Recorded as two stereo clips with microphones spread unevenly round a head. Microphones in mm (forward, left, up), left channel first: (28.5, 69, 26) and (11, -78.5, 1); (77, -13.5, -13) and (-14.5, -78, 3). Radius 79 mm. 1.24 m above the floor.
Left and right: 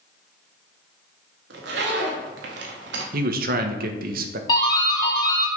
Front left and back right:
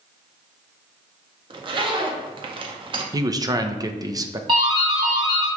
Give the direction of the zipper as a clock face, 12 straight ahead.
3 o'clock.